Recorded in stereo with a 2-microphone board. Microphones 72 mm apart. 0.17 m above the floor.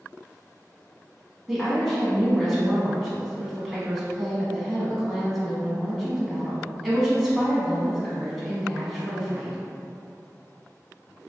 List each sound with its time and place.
1.5 s a woman speaking: 5° right (ahead or behind), 1.0 m